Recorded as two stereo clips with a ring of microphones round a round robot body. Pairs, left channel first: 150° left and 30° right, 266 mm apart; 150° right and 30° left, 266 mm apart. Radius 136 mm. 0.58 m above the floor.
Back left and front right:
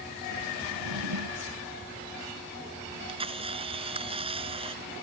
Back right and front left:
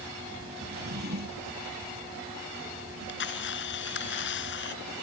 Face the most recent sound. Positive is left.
turn(degrees=-100)